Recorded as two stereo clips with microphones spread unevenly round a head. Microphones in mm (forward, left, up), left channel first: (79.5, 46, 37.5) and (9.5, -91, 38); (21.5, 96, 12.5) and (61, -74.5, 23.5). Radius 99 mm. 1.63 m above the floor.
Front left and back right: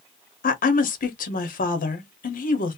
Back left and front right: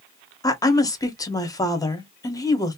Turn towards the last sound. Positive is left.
turn(degrees=30)